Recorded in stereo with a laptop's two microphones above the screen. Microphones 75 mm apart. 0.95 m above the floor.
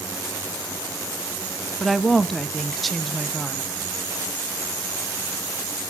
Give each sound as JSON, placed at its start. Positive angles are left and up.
{"t": 1.8, "sound": "a woman speaking", "side_deg": 5, "distance_m": 0.6}